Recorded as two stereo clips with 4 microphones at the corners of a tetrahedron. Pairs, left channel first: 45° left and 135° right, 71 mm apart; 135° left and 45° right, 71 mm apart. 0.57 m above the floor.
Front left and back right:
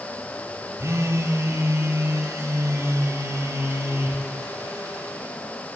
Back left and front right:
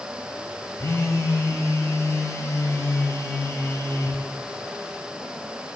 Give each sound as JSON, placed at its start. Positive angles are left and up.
{"t": 0.8, "sound": "a phone buzzing", "azimuth_deg": 180, "distance_m": 1.6}